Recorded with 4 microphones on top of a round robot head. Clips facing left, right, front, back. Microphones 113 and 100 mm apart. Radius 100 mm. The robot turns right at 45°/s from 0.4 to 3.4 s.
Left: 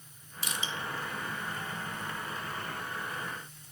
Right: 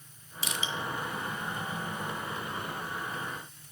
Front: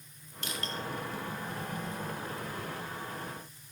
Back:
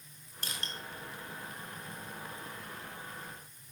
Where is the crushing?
120° right, 0.7 m; by 0.7 s 105° right, 0.7 m.